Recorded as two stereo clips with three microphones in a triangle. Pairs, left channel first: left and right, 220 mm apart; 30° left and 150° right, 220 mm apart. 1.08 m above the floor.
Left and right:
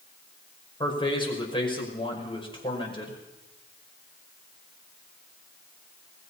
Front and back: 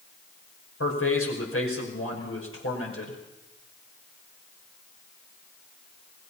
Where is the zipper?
No zipper in this recording.